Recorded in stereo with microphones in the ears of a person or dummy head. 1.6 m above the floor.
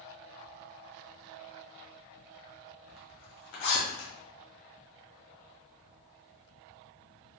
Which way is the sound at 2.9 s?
70° left (ahead or behind).